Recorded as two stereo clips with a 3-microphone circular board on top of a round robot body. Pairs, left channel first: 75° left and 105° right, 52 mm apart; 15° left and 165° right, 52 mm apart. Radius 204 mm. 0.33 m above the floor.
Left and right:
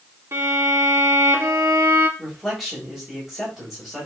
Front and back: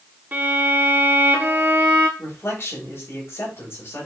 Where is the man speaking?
20° right, 4 m.